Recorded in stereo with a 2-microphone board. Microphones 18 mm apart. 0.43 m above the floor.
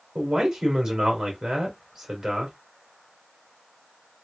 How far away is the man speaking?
About 1.7 m.